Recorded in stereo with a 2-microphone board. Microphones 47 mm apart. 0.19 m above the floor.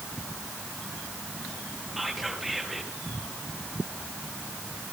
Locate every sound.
2.0 s whispering: centre (ahead or behind), 4 m